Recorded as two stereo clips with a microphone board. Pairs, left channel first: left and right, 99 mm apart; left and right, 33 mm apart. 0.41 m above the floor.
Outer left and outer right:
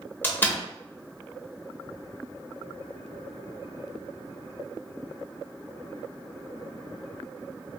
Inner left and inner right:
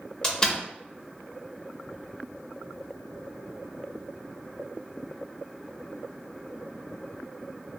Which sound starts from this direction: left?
A door slam, at 0.2 s.